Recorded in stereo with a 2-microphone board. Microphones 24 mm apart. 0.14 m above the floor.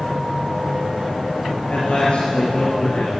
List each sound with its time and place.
1.7 s a man speaking: 55° left (ahead or behind), 3 m